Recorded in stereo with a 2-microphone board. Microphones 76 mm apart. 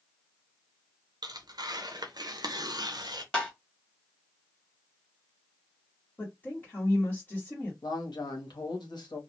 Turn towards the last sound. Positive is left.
turn(degrees=80)